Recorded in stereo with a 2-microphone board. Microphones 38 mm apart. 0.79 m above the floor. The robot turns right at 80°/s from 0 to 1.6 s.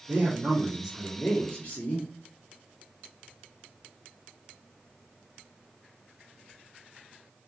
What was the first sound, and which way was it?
A man speaking, 80° right.